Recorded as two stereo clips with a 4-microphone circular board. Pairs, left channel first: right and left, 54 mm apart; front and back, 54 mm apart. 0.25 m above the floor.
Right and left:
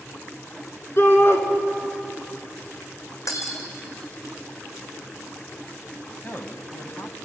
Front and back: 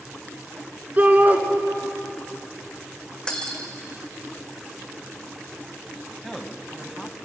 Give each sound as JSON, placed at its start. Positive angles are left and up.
{"t": 1.0, "sound": "a shout", "azimuth_deg": -125, "distance_m": 3.0}
{"t": 3.3, "sound": "breaking glass", "azimuth_deg": -75, "distance_m": 3.0}
{"t": 6.2, "sound": "a man speaking", "azimuth_deg": -85, "distance_m": 1.5}